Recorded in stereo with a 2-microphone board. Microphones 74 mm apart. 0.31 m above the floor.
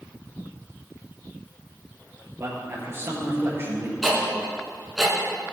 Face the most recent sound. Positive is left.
turn(degrees=0)  # may be behind; listen again after turning